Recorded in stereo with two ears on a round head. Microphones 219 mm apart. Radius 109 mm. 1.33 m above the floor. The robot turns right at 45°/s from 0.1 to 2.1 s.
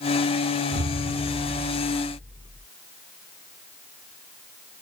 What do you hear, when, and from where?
0.7 s an explosion: 60° right; by 2.7 s straight ahead